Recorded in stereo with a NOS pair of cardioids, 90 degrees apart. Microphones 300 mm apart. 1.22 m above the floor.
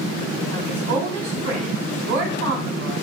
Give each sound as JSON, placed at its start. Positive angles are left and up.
{"t": 0.5, "sound": "a woman speaking", "azimuth_deg": -60, "distance_m": 2.0}